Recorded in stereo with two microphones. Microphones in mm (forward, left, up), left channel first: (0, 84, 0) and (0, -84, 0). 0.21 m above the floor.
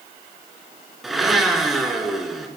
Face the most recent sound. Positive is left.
turn(degrees=0)  # may be behind; listen again after turning